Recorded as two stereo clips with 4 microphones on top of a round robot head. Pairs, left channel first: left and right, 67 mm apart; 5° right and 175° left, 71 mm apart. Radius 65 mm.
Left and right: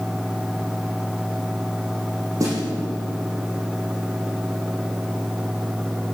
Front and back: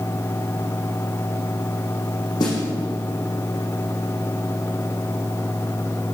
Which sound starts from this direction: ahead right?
A snare drum, at 2.4 s.